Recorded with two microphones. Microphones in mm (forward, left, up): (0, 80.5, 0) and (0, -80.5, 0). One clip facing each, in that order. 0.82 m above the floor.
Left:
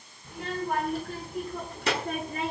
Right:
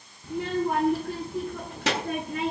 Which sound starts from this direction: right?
A child speaking, at 0.2 s.